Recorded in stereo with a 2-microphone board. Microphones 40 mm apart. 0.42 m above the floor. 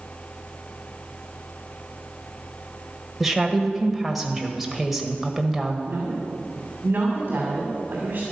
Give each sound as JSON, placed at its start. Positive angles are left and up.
{"t": 3.2, "sound": "a woman speaking", "side_deg": -5, "distance_m": 1.5}
{"t": 5.9, "sound": "a woman speaking", "side_deg": -55, "distance_m": 2.5}